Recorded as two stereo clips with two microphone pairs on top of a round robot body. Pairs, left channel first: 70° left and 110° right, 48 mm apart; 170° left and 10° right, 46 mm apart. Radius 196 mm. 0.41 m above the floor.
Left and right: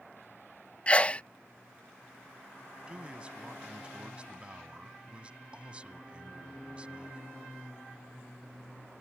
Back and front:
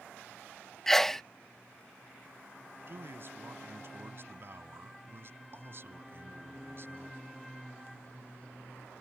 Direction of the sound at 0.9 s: 85° left.